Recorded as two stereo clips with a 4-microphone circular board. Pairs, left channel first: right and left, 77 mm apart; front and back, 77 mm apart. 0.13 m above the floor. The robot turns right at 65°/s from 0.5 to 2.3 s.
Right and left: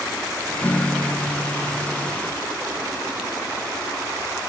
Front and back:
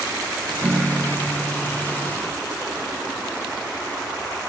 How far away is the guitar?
About 0.6 m.